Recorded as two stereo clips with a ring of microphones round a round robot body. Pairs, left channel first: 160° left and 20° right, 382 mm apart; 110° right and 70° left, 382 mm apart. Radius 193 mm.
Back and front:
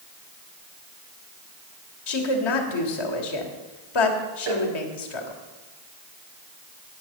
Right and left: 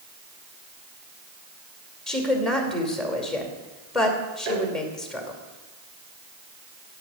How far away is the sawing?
I don't hear sawing.